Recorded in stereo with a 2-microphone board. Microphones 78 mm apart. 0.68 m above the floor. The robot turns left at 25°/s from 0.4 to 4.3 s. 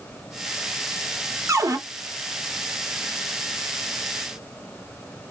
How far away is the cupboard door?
About 0.7 m.